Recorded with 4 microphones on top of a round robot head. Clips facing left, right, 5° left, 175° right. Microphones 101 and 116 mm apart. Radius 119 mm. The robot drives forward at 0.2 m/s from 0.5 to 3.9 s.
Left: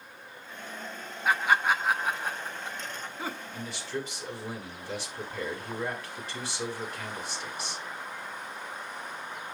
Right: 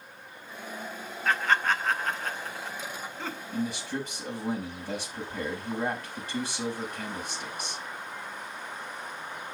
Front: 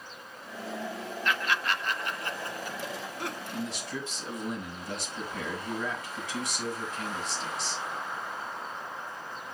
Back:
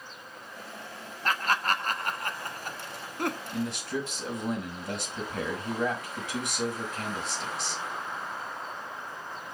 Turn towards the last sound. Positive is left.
turn(degrees=-140)